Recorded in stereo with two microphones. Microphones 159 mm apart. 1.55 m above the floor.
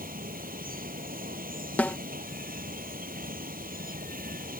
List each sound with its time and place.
0.0 s running water: 70° right (ahead or behind)
1.8 s a snare drum: 10° left (ahead or behind)